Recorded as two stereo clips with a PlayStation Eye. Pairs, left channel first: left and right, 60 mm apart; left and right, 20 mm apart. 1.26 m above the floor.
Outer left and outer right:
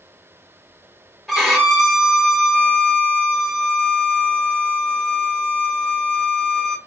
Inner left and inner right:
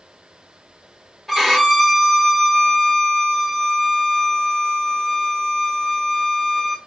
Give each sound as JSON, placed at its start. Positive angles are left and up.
{"t": 1.3, "sound": "a violin", "side_deg": 0, "distance_m": 2.0}